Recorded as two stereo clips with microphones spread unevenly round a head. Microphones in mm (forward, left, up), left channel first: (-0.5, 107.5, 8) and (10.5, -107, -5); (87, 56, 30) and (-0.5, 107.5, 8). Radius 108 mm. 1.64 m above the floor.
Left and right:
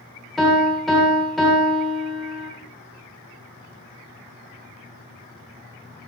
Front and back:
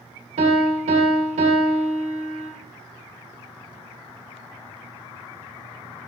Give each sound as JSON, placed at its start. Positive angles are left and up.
{"t": 0.4, "sound": "a piano", "azimuth_deg": 180, "distance_m": 1.9}